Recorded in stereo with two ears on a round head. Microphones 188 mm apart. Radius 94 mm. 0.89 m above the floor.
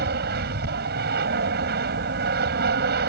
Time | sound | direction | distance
0.0 | an aircraft | 50° right (ahead or behind) | ?